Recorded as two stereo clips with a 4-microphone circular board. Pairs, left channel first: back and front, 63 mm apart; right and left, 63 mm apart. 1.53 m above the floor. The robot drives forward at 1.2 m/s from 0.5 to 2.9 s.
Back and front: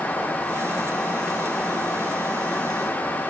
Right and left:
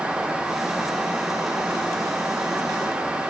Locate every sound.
Only background noise.